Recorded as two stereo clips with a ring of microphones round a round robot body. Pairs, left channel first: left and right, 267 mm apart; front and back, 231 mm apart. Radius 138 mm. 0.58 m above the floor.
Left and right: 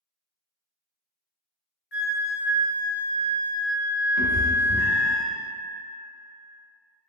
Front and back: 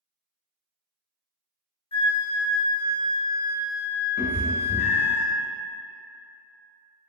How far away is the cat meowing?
About 0.7 m.